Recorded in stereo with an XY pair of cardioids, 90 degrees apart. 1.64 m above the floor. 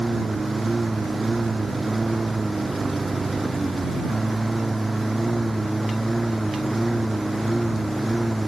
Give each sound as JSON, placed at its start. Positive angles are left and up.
{"t": 0.0, "sound": "a lawn mower", "azimuth_deg": -15}